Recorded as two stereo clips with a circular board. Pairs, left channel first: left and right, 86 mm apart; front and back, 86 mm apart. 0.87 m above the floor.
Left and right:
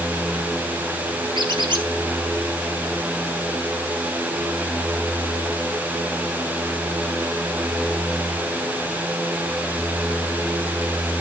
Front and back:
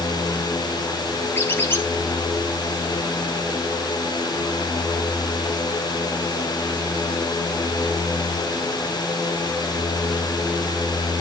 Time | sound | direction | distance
1.4 | a squeak | 65° right | 2.5 m